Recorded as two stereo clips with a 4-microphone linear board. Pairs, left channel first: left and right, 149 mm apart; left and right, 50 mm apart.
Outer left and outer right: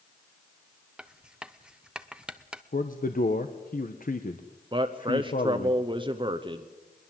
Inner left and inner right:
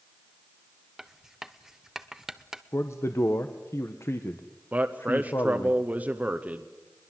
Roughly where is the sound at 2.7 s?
Left.